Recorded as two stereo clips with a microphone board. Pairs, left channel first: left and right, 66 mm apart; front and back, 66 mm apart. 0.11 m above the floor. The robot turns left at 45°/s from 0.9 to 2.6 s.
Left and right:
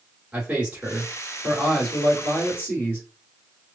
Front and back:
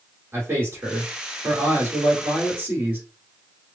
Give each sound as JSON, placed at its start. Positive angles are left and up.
{"t": 0.3, "sound": "a man speaking", "azimuth_deg": -150, "distance_m": 1.9}